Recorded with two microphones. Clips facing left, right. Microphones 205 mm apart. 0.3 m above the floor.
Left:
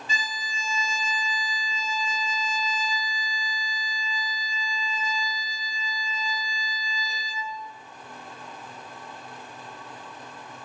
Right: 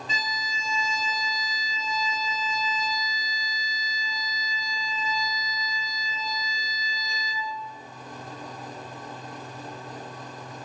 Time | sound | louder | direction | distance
0.1 | a violin | right 1 dB | 70° right (ahead or behind) | 1.2 m